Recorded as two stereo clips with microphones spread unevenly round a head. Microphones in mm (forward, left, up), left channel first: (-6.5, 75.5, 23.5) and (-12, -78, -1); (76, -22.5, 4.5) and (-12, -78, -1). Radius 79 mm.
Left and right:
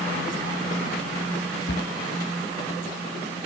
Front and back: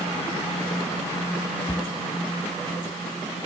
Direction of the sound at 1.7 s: 105° left.